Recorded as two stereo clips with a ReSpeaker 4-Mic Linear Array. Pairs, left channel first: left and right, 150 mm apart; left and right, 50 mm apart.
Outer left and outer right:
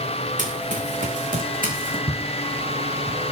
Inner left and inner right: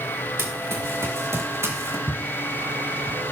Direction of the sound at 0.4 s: 55° right (ahead or behind).